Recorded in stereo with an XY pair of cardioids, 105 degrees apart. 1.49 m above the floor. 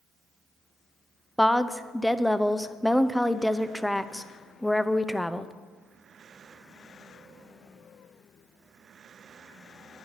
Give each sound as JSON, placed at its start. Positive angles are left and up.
{"t": 1.4, "sound": "a woman speaking", "azimuth_deg": 5, "distance_m": 0.6}